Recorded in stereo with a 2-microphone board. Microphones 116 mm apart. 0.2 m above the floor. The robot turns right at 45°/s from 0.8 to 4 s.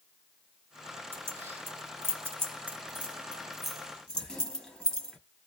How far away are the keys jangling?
About 0.9 m.